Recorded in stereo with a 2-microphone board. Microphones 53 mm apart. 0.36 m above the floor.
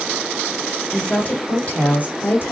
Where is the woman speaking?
25° left (ahead or behind), 1.5 m; by 2.5 s 45° left (ahead or behind), 1.8 m.